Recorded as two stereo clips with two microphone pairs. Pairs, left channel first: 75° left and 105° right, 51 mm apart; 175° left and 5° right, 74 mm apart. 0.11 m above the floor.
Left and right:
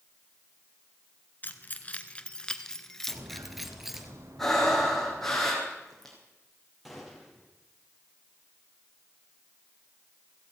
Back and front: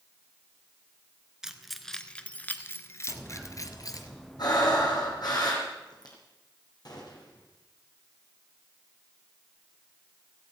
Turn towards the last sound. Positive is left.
turn(degrees=165)